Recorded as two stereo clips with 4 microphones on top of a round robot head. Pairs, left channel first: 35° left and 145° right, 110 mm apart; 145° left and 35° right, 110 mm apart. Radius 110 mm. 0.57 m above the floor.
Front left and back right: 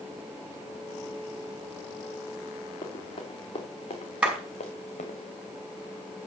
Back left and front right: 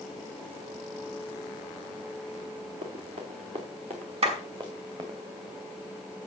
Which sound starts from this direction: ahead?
Running footsteps, at 2.8 s.